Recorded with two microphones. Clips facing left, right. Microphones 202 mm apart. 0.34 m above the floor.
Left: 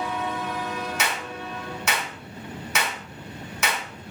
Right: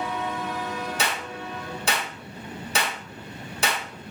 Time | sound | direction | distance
1.0 | a clap | 30° right (ahead or behind) | 1.0 m